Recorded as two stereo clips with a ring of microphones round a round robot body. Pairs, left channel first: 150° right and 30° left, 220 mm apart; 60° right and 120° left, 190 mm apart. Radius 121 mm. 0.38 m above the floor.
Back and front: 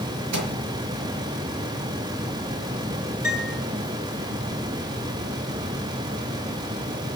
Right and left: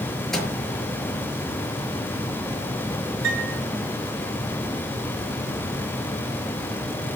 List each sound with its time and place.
0.3 s a microwave: 30° left, 5.5 m
3.2 s a piano: 115° left, 7.5 m